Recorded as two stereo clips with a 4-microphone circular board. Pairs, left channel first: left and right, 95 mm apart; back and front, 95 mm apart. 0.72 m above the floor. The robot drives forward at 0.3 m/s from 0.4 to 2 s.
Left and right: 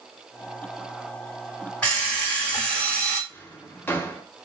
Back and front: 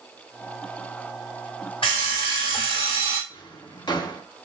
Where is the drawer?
155° left, 0.6 m.